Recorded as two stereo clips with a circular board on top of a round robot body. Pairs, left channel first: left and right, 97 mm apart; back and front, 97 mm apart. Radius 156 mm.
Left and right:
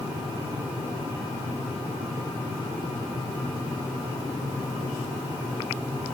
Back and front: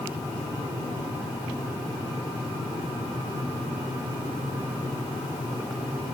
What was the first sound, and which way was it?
Only background noise.